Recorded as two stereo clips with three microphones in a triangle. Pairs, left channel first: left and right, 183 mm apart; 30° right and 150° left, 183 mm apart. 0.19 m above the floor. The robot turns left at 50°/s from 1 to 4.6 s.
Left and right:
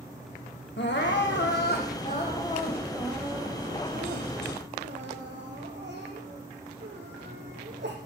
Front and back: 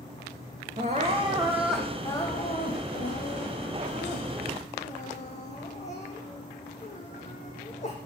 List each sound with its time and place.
0.8 s crying: 100° left, 3.5 m; by 8.0 s 80° right, 3.5 m